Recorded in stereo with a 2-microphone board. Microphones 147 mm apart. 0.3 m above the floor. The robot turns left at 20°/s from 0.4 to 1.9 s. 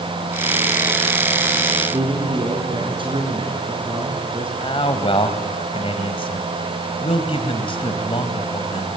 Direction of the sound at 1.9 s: 35° right (ahead or behind).